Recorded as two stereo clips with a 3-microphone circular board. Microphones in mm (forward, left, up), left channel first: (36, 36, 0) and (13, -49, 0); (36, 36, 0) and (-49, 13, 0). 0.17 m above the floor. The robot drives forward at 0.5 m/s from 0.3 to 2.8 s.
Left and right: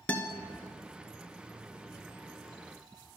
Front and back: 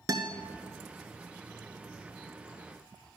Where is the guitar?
145° left, 0.6 m.